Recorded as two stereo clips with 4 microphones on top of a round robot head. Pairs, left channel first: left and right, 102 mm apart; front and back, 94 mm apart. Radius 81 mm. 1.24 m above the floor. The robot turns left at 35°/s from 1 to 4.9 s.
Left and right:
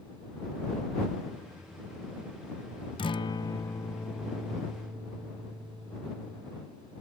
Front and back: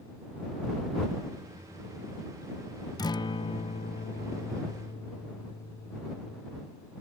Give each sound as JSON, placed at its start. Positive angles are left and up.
{"t": 3.0, "sound": "a guitar", "azimuth_deg": 50}